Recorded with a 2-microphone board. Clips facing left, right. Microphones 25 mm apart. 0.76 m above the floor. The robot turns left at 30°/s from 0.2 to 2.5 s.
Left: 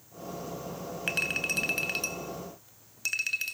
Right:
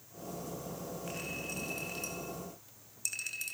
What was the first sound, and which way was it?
A clink, 80° left.